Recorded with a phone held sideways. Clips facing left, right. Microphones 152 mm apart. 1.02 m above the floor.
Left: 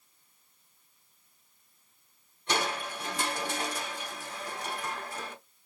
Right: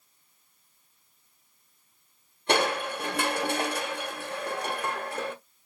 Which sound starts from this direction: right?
Crushing, at 2.5 s.